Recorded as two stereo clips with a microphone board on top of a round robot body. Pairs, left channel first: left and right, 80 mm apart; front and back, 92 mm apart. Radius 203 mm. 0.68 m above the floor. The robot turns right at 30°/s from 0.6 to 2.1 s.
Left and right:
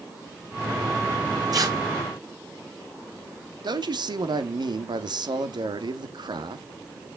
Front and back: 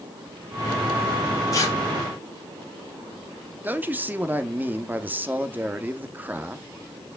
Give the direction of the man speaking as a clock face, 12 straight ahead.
4 o'clock.